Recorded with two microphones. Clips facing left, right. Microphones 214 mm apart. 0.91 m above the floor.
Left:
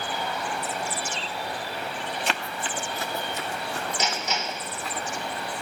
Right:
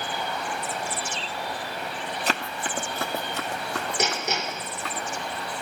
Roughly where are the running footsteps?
Right.